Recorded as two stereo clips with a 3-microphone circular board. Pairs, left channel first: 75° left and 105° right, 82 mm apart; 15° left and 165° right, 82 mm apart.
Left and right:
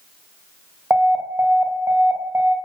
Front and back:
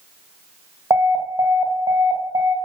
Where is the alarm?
160° right, 2 m.